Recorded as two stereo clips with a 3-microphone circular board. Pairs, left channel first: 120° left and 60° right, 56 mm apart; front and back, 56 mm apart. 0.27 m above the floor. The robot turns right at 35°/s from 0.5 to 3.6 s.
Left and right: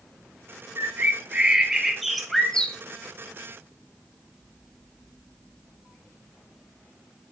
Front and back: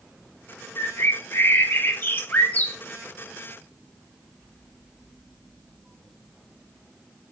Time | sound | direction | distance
0.8 | a bird | 20° right | 0.5 m